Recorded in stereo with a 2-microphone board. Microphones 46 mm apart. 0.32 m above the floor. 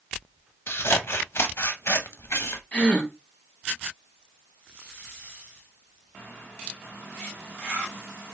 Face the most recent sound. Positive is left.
turn(degrees=30)  # may be behind; listen again after turning